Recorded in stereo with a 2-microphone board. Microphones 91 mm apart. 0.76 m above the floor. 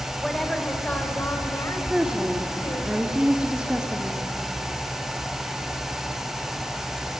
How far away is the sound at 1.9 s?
About 1.7 m.